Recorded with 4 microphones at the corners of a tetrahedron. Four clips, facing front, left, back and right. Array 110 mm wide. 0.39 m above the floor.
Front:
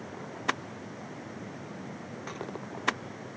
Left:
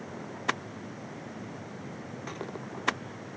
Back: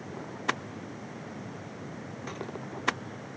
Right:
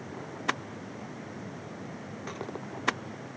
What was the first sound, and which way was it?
Only background noise.